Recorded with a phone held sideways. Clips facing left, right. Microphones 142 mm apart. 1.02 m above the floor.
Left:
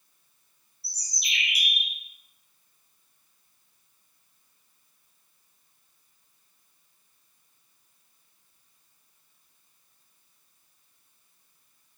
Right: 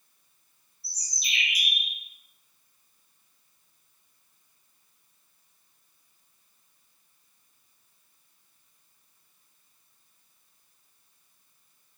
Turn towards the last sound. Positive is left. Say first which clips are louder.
# left 1 dB
turn(degrees=60)  # may be behind; listen again after turning